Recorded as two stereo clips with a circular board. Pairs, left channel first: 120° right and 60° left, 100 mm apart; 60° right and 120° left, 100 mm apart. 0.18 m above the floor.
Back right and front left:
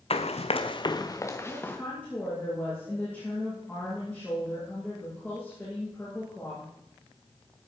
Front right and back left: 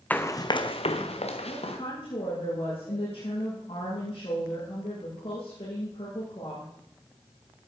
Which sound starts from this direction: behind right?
Running footsteps, at 0.1 s.